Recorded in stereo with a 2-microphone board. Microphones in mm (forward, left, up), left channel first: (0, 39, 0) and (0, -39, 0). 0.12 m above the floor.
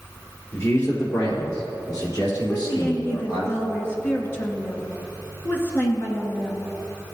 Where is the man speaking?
40° left (ahead or behind), 2.5 m; by 3.5 s 70° left (ahead or behind), 4 m.